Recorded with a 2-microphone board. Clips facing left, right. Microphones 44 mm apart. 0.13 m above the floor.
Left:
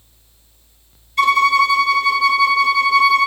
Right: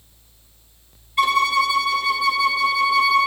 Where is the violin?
15° right (ahead or behind), 1.3 m.